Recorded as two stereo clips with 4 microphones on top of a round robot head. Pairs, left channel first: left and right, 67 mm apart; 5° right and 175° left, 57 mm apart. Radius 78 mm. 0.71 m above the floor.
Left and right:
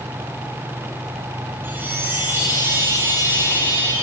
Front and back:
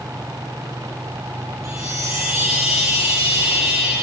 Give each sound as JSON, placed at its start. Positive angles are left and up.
{"t": 1.6, "sound": "a chime", "azimuth_deg": -145, "distance_m": 8.0}